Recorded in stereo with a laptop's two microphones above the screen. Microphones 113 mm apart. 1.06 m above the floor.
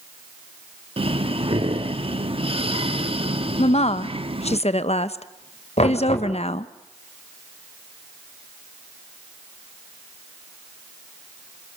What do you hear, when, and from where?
1.0 s breathing: 55° right (ahead or behind), 1.0 m
3.6 s a woman speaking: 70° left (ahead or behind), 0.9 m
5.8 s knocking: 75° left (ahead or behind), 3.5 m